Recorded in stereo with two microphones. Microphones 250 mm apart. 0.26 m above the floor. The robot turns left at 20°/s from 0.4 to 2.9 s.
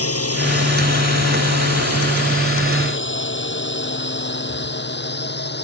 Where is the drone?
65° left (ahead or behind); by 5.6 s 40° left (ahead or behind).